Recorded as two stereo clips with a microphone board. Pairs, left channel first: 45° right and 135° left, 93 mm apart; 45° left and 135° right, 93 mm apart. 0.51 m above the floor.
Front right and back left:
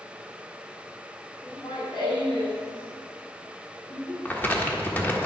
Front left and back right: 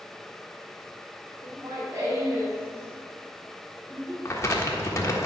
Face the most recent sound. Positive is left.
turn(degrees=10)